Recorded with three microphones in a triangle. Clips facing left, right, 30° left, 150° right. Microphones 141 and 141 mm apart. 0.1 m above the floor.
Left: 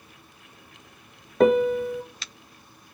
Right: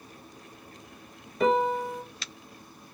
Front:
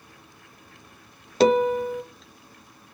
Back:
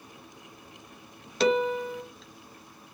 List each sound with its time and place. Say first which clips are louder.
1.4 s a piano: left 5 dB, front 6 dB; 70° left, 0.5 m